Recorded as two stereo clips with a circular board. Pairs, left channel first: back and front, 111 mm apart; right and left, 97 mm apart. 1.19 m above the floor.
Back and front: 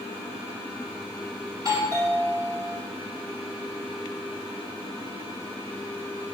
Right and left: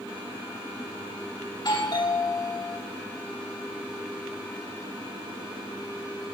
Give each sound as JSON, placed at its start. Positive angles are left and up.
{"t": 1.5, "sound": "a doorbell", "azimuth_deg": -50, "distance_m": 3.0}